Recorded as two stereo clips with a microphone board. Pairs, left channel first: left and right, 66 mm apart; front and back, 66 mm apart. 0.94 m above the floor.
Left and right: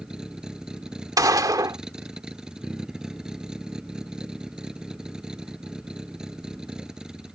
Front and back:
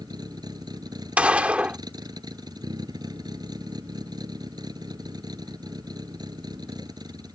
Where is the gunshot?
110° right.